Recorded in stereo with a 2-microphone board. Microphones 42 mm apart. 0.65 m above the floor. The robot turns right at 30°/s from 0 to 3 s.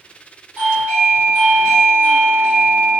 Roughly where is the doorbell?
Right.